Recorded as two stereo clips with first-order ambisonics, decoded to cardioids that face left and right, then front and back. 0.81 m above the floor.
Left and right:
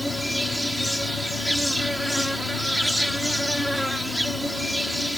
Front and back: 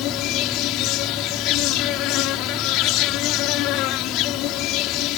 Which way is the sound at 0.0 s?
Straight ahead.